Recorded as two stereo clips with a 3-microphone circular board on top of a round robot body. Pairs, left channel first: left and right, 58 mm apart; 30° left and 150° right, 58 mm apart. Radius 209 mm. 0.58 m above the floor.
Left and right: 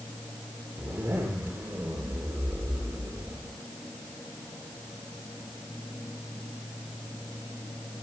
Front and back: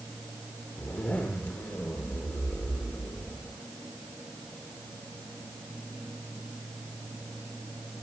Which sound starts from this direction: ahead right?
A zipper, at 0.8 s.